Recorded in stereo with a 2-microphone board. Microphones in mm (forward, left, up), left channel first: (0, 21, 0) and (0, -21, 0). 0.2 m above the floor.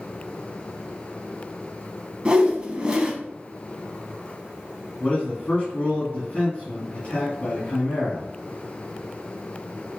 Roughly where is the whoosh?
Right.